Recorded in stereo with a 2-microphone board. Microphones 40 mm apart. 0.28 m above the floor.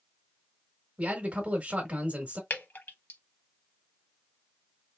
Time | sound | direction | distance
1.0 | a man speaking | 35° right (ahead or behind) | 1.1 m
2.5 | dripping | 55° left (ahead or behind) | 0.8 m